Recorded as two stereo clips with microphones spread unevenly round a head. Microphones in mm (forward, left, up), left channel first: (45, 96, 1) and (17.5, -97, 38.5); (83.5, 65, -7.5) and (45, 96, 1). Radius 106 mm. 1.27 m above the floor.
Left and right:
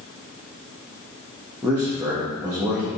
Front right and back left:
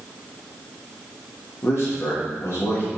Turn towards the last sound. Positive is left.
turn(degrees=-15)